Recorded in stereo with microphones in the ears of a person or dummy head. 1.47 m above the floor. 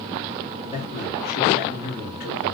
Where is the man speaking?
35° left (ahead or behind), 3 m; by 2.5 s 60° left (ahead or behind), 2 m.